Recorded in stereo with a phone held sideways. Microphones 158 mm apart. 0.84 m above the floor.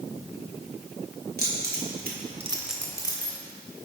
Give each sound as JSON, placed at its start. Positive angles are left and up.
{"t": 1.4, "sound": "keys jangling", "side_deg": -85, "distance_m": 1.9}